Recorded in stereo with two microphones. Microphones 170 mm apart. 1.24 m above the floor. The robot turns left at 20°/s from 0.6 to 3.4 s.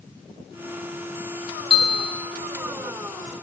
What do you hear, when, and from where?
1.7 s a bell: 35° left (ahead or behind), 1.6 m; by 2.3 s 30° left (ahead or behind), 1.6 m